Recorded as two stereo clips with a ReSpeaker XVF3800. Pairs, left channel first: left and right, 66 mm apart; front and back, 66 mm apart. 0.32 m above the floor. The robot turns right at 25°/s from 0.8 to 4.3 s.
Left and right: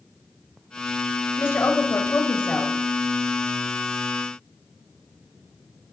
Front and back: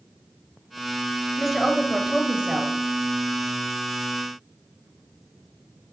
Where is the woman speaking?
90° left, 1.1 m; by 2.8 s 125° left, 1.1 m.